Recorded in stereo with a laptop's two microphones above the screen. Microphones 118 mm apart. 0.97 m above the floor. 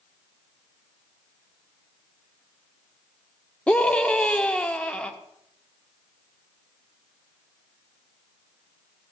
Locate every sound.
3.7 s a scream: 10° left (ahead or behind), 1.8 m